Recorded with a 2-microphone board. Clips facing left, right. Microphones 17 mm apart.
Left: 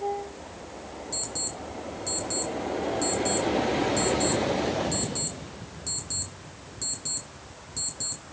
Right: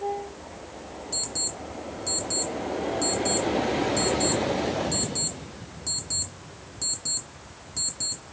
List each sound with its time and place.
1.1 s an alarm clock: centre (ahead or behind), 2 m